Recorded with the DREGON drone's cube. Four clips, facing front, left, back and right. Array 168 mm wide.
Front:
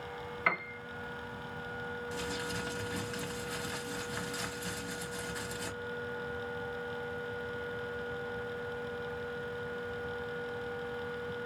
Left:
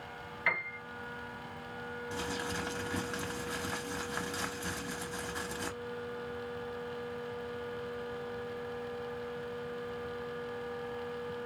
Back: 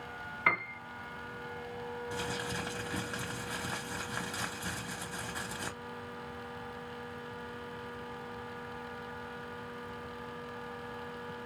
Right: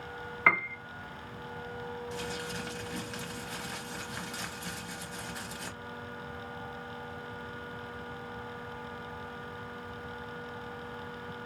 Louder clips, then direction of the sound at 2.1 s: Left 1 dB, back 1 dB; 140° left.